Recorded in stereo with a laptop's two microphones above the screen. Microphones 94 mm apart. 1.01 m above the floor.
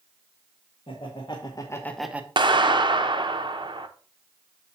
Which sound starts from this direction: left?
Laughter, at 0.9 s.